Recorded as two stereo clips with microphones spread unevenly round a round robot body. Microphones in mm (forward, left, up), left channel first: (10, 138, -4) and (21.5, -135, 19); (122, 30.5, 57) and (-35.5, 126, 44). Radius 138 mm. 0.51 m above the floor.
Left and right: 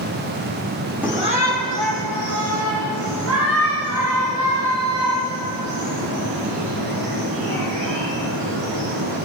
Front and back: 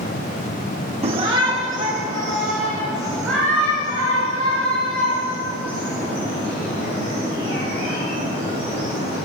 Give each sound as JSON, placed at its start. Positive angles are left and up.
{"t": 1.0, "sound": "a shout", "azimuth_deg": -175, "distance_m": 0.9}